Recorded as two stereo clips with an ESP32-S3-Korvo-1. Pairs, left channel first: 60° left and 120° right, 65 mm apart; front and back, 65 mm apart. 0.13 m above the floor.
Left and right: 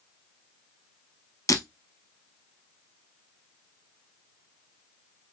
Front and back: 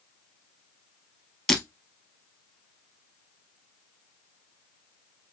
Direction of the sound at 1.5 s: 80° left.